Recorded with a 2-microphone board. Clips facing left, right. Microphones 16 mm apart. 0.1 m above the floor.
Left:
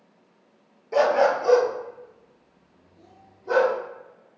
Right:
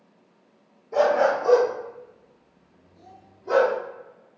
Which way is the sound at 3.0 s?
30° right (ahead or behind).